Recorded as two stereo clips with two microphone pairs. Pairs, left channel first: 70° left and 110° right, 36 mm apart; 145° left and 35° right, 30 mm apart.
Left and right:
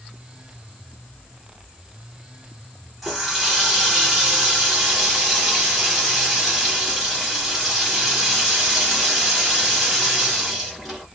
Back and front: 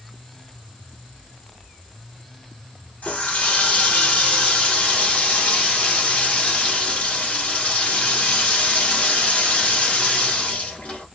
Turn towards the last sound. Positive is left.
turn(degrees=165)